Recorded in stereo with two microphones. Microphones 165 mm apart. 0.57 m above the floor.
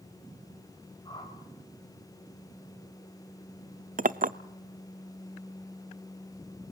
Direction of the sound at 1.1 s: 25° left (ahead or behind).